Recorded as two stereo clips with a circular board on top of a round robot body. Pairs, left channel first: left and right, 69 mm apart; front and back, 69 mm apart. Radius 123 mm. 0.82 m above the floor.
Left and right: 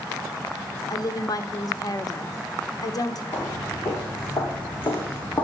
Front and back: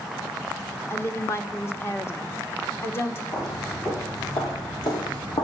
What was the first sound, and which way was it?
A woman speaking, 55° left.